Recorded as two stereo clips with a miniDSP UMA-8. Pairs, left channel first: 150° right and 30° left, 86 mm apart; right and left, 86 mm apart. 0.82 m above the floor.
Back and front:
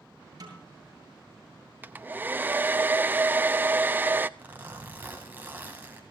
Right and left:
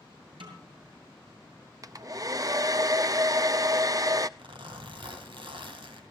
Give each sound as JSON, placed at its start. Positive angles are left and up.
{"t": 0.4, "sound": "a snare drum", "azimuth_deg": 75, "distance_m": 7.5}
{"t": 1.8, "sound": "a hair dryer", "azimuth_deg": 85, "distance_m": 0.6}
{"t": 4.4, "sound": "a zipper", "azimuth_deg": 100, "distance_m": 3.0}